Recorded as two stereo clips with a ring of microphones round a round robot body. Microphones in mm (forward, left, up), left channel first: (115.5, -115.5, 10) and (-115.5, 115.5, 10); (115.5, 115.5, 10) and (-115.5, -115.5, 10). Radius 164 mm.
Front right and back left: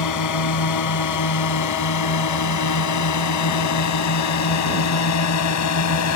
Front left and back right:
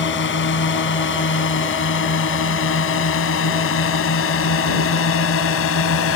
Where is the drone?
10° right; by 6.2 s 5° right.